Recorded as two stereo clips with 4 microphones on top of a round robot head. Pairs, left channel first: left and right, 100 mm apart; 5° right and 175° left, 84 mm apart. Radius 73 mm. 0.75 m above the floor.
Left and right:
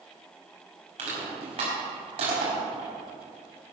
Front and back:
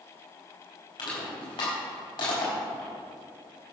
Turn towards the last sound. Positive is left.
turn(degrees=-50)